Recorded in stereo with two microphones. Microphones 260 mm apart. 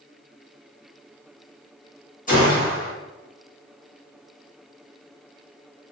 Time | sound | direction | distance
2.3 | a gunshot | 30° left (ahead or behind) | 1.4 m